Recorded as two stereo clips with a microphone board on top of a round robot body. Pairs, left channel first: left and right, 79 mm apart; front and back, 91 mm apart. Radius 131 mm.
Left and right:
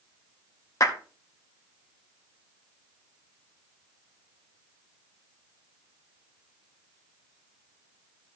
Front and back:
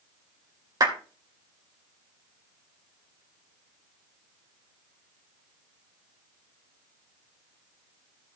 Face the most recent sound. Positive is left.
turn(degrees=135)